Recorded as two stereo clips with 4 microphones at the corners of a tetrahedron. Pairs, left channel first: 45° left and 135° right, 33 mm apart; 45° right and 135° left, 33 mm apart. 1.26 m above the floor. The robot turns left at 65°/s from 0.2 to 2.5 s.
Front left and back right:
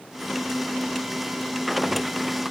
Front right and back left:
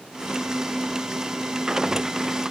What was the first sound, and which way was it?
Only background noise.